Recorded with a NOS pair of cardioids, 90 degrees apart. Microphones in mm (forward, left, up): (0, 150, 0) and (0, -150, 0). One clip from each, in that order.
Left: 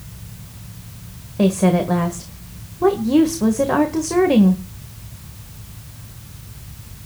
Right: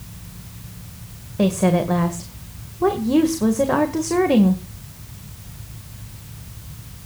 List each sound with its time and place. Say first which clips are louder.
1.4 s a woman speaking: left 1 dB; straight ahead, 1.8 m